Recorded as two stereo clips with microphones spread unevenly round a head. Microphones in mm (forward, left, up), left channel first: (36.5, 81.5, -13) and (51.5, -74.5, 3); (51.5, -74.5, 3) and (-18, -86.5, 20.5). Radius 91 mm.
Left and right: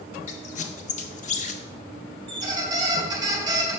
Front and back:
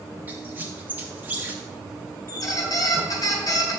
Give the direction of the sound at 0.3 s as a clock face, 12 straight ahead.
7 o'clock.